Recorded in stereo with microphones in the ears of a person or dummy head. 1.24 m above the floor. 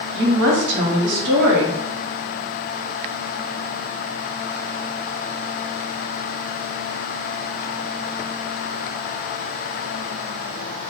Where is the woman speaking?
55° right (ahead or behind), 0.8 m.